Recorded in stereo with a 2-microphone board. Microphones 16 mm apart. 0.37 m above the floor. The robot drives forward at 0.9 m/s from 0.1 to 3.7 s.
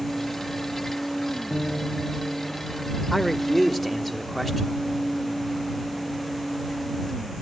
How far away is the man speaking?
About 0.9 m.